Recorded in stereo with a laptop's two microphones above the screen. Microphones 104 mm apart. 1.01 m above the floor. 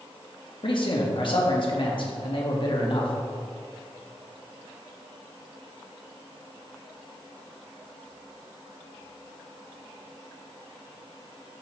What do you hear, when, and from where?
0.6 s a man speaking: 50° left (ahead or behind), 1.7 m